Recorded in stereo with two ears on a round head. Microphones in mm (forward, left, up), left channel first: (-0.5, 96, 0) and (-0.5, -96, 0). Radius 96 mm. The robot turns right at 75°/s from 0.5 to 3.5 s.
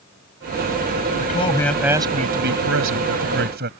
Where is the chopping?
No chopping in this recording.